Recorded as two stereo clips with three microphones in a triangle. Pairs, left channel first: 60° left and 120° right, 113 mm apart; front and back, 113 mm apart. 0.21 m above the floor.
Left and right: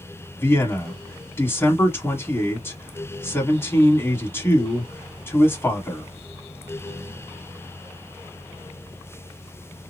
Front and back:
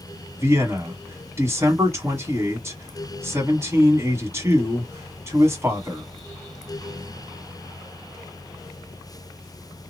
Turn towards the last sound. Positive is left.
turn(degrees=120)